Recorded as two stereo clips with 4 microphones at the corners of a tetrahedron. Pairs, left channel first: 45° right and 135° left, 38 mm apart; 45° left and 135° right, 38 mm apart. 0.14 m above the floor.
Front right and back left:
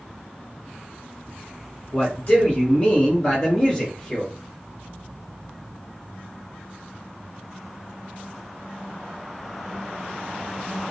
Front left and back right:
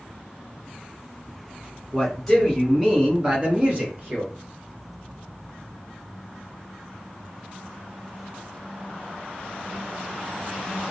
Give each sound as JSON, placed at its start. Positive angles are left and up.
{"t": 1.9, "sound": "a man speaking", "azimuth_deg": -25, "distance_m": 1.3}